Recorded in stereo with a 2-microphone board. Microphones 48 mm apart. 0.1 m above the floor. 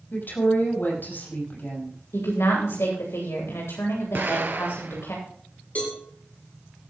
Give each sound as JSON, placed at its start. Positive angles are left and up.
{"t": 0.1, "sound": "a woman speaking", "side_deg": 45, "distance_m": 5.5}
{"t": 2.1, "sound": "a woman speaking", "side_deg": 70, "distance_m": 8.5}
{"t": 4.2, "sound": "an explosion", "side_deg": -45, "distance_m": 1.3}
{"t": 5.8, "sound": "a cowbell", "side_deg": 35, "distance_m": 6.5}